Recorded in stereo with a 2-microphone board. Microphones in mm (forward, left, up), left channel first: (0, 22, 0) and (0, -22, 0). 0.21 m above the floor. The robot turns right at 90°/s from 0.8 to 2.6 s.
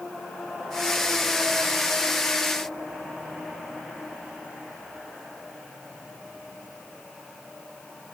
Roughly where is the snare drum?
I don't hear a snare drum.